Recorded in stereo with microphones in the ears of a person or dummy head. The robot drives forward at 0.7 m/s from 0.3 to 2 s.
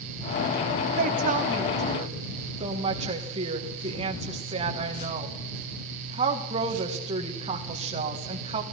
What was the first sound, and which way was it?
A woman speaking, 50° right (ahead or behind).